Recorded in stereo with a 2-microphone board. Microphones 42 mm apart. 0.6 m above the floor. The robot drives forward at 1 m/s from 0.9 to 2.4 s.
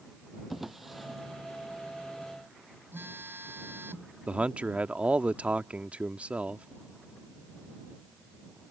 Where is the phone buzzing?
70° right (ahead or behind).